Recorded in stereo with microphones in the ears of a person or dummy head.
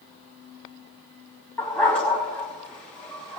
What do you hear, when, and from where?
1.6 s a dog barking: 10° left (ahead or behind), 2.5 m